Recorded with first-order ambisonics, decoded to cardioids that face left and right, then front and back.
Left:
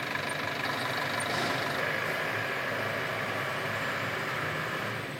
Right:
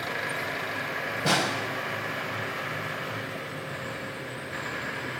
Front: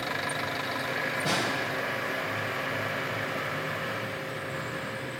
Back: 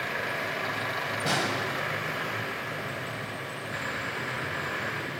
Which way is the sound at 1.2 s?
100° right.